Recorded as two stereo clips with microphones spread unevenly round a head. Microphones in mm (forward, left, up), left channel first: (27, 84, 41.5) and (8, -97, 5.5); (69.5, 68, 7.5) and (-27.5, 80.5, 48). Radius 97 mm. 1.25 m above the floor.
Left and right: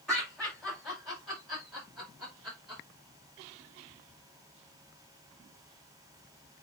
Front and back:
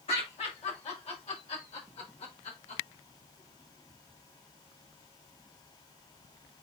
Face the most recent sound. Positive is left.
turn(degrees=-10)